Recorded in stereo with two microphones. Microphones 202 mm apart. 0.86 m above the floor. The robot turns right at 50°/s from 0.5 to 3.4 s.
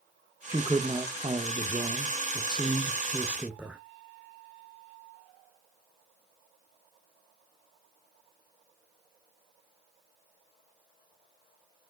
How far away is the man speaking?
About 0.9 m.